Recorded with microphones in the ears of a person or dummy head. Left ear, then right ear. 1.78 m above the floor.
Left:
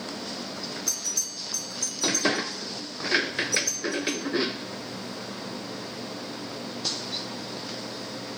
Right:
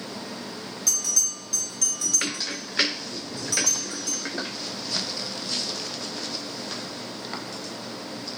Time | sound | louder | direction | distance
0.9 | a bell | right 7 dB | 40° right (ahead or behind) | 4 m